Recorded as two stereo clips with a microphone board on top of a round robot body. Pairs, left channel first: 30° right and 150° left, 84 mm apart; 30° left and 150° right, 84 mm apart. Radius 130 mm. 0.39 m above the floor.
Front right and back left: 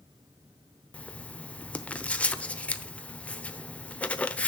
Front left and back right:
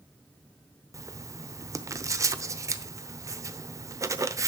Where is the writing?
105° right, 0.9 m.